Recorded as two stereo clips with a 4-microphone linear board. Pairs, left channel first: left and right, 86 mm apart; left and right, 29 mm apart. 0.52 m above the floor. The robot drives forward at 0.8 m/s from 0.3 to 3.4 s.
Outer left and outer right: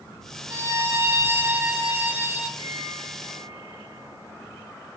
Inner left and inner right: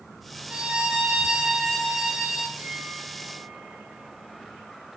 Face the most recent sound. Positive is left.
turn(degrees=-65)  # may be behind; listen again after turning